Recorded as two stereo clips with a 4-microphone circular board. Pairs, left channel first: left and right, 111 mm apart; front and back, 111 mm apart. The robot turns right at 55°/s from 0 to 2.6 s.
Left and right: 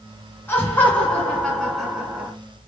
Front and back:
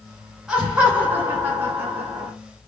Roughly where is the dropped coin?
I don't hear a dropped coin.